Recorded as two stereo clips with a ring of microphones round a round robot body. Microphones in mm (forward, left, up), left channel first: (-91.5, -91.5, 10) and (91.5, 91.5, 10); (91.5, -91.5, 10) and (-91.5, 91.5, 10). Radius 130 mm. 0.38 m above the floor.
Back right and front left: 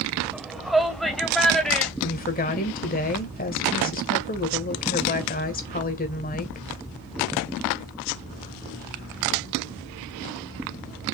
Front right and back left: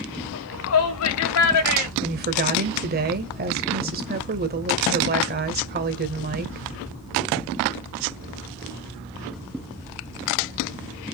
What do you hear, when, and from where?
0.3 s a shout: 45° right, 1.6 m
2.0 s a woman speaking: 175° left, 1.8 m